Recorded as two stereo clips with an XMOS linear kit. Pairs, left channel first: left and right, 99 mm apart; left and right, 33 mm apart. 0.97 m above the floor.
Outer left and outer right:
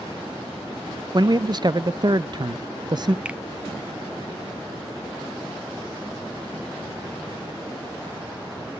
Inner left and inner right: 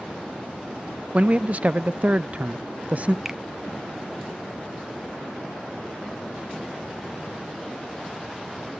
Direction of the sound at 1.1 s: 45° right (ahead or behind).